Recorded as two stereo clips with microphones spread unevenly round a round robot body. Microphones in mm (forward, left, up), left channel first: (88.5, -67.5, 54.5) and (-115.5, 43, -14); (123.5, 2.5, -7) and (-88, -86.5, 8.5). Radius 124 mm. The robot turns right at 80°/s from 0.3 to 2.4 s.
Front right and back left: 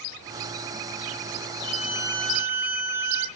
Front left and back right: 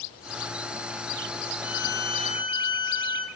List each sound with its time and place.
1.6 s a violin: 25° left, 0.7 m; by 3.3 s 90° left, 0.7 m